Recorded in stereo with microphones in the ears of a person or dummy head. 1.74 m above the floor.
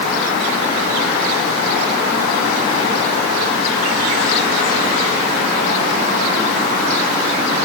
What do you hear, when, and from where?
Only background noise.